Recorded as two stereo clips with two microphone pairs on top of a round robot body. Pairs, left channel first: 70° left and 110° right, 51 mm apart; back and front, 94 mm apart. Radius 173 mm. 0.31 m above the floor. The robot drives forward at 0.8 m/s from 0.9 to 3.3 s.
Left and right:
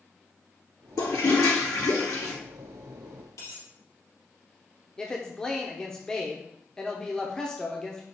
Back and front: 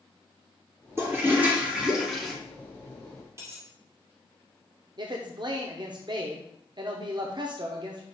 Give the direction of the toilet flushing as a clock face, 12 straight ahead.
10 o'clock.